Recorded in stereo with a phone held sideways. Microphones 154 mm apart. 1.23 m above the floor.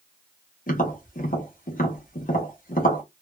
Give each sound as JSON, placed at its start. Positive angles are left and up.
{"t": 0.7, "sound": "tapping", "side_deg": 65, "distance_m": 1.0}